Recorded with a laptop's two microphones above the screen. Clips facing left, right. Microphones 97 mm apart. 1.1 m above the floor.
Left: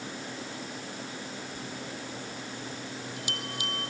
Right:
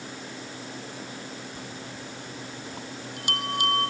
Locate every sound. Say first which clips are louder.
1.6 s a bell: even; 50° right (ahead or behind)